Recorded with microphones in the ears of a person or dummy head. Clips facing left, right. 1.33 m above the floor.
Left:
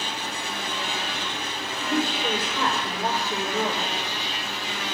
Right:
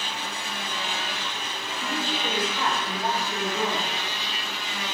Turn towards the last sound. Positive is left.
turn(degrees=70)  # may be behind; listen again after turning